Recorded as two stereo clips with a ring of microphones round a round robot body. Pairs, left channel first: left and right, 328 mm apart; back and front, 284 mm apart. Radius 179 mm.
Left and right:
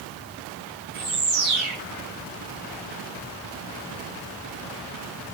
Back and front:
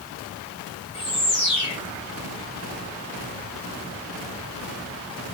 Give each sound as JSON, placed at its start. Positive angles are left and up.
{"t": 0.9, "sound": "a bird", "azimuth_deg": -105, "distance_m": 6.0}